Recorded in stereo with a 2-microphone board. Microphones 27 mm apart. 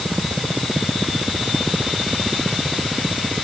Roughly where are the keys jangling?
I don't hear keys jangling.